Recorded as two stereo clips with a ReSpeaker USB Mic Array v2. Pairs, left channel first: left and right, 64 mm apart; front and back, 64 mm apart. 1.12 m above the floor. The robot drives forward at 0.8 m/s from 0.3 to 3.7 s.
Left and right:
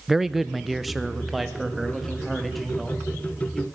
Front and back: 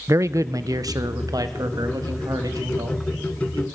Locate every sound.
0.1 s a man speaking: 175° right, 0.5 m; by 3.6 s straight behind, 3 m